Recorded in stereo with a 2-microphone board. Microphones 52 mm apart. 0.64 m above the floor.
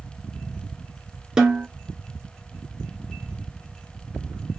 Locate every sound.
1.4 s a snare drum: 15° right (ahead or behind), 1.5 m